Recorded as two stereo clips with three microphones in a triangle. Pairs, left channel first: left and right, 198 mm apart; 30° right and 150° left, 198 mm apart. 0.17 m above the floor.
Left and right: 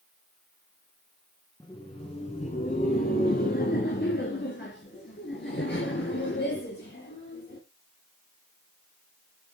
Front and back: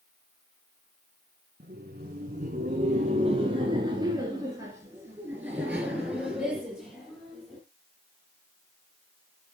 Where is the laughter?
150° left, 1.9 m; by 7.6 s 60° left, 4.5 m.